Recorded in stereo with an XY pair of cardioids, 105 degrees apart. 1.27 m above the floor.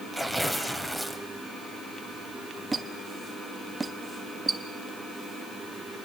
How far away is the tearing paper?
About 3.5 m.